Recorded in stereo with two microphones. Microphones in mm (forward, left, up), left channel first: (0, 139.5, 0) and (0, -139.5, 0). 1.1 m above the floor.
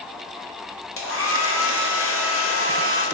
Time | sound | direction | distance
1.0 | a hair dryer | 50° left (ahead or behind) | 0.6 m